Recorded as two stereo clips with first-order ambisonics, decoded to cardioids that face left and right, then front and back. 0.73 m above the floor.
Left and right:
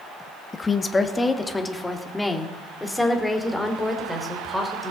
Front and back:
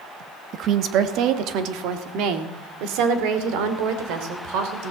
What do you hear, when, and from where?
0.5 s a woman speaking: 155° left, 1.0 m; by 4.9 s 175° left, 3.5 m